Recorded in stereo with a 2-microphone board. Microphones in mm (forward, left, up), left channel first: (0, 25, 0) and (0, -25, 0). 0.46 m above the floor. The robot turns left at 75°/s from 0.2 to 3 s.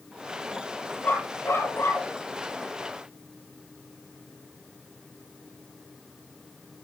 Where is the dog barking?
150° left, 4.5 m; by 2.1 s 65° left, 4.5 m.